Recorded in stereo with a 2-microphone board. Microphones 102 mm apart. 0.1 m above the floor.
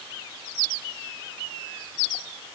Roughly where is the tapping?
I don't hear tapping.